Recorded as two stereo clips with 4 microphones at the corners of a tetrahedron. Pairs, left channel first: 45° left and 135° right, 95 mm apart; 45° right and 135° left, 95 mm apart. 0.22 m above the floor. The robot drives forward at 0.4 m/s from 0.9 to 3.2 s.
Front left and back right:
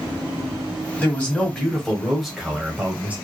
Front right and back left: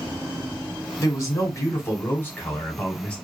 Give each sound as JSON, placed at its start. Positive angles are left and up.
{"t": 1.0, "sound": "a man speaking", "azimuth_deg": -20, "distance_m": 1.3}